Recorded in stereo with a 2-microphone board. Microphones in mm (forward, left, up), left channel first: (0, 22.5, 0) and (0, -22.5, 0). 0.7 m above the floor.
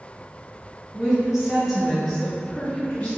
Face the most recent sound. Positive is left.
turn(degrees=30)  # may be behind; listen again after turning